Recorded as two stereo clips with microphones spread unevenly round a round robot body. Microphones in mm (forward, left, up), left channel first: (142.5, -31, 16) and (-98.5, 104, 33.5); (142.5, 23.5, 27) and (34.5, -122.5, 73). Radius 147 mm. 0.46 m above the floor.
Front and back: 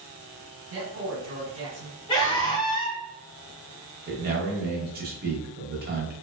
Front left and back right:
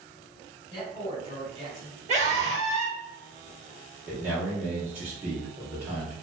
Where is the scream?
80° right, 0.9 m.